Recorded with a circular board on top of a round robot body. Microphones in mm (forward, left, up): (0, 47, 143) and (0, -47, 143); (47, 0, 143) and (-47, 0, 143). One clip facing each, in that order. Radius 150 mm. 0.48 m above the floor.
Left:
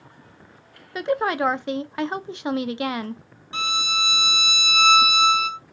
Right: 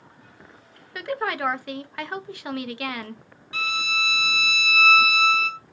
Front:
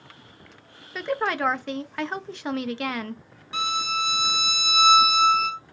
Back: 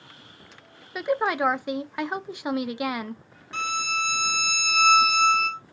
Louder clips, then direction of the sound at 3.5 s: Left 2 dB, front 2 dB; 70° left.